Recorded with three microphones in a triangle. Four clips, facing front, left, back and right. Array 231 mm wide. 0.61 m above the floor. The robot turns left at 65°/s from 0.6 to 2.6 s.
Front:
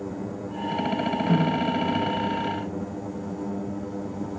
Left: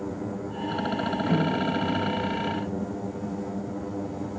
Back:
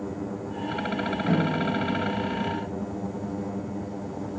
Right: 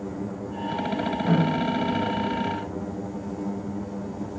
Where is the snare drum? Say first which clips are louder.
Right 3 dB, front 1 dB; 130° right, 2.5 m; by 1.7 s 155° right, 2.5 m.